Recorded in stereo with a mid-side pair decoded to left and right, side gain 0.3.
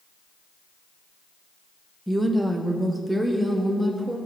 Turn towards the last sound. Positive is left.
turn(degrees=-10)